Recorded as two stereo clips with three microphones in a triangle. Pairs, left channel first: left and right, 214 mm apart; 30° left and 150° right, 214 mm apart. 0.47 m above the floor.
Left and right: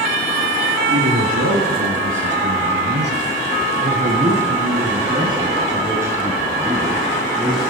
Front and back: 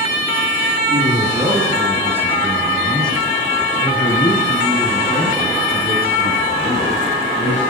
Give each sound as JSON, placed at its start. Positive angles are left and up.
{"t": 0.9, "sound": "a man speaking", "azimuth_deg": -85, "distance_m": 5.5}